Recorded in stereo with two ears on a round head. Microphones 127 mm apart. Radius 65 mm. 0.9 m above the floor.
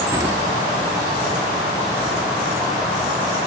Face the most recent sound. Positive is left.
turn(degrees=-25)  # may be behind; listen again after turning